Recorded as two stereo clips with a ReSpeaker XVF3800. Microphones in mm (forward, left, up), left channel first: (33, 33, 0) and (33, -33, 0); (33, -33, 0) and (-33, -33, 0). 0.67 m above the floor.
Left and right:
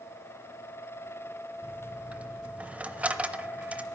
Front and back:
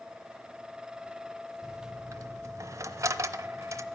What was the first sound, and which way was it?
A dropped coin, 155° right.